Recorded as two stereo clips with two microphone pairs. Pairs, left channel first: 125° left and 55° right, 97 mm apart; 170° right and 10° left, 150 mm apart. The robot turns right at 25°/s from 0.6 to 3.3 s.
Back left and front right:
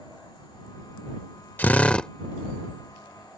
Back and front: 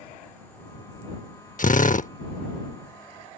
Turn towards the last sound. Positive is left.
turn(degrees=-125)